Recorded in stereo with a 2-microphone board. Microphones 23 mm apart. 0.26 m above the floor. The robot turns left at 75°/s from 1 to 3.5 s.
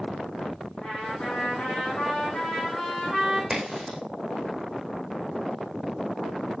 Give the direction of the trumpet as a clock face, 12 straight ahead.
7 o'clock.